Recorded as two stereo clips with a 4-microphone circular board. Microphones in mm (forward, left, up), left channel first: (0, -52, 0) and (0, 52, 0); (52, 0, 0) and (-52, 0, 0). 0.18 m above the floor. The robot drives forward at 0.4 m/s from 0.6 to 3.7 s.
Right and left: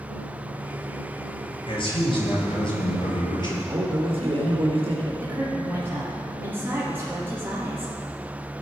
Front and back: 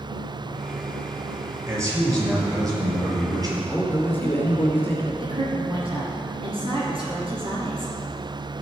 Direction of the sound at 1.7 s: 125° right.